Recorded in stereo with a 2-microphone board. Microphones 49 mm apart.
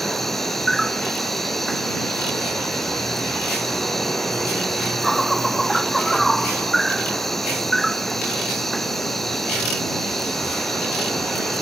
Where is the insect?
5° left (ahead or behind).